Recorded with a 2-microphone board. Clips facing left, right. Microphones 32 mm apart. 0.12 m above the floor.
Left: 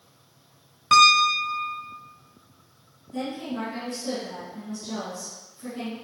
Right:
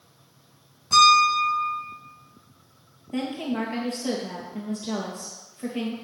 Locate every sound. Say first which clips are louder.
0.9 s a piano: even; 70° left (ahead or behind), 2 m
3.1 s a woman speaking: right 3 dB; 55° right (ahead or behind), 2.5 m